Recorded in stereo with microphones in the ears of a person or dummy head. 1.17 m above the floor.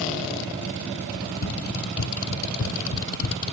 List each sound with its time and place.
1.1 s running footsteps: 65° left (ahead or behind); by 3.5 s 75° left (ahead or behind)